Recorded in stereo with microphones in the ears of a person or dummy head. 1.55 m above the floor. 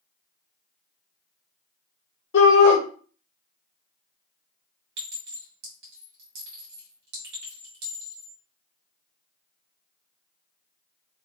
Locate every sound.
2.3 s a shout: 75° left (ahead or behind), 1.5 m
5.0 s a clink: 70° right (ahead or behind), 1.9 m